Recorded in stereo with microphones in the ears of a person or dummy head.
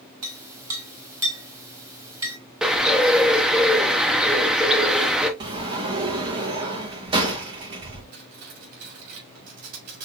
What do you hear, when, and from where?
0.2 s a clink: 20° right (ahead or behind), 1.6 m
2.6 s a bird: 5° right (ahead or behind), 0.7 m
5.4 s a sliding door: 25° right (ahead or behind), 1.1 m
8.1 s cutlery clinking: 55° right (ahead or behind), 3 m